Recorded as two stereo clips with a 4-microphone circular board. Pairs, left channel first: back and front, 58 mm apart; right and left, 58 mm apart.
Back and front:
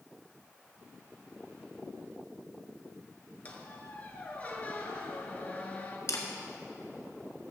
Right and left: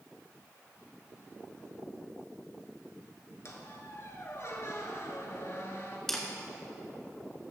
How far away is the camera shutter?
About 1.4 m.